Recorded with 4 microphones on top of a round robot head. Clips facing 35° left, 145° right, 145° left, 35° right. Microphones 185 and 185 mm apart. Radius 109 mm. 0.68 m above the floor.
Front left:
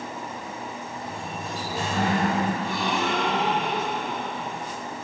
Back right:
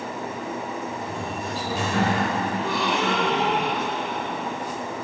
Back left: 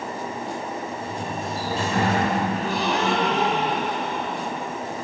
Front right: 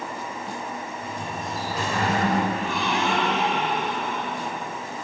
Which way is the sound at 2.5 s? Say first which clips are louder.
Back right 2 dB, back left 2 dB; 165° right.